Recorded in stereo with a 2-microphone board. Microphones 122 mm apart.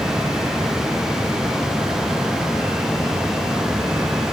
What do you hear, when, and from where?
Only background noise.